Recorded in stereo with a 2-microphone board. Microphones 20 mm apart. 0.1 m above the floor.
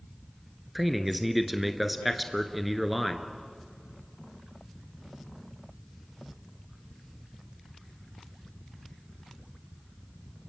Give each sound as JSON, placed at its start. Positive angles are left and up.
{"t": 0.8, "sound": "a man speaking", "side_deg": -5, "distance_m": 1.4}